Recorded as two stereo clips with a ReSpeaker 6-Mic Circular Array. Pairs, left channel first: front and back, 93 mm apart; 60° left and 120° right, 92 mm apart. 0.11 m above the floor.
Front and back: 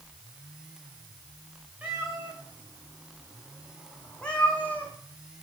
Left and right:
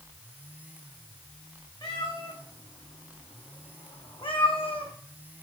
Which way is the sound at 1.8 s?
105° left.